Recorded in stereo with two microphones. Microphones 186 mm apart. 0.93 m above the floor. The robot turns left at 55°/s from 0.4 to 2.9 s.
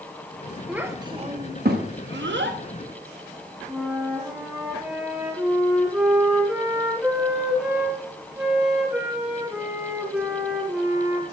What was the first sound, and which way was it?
A child speaking, 5° right (ahead or behind).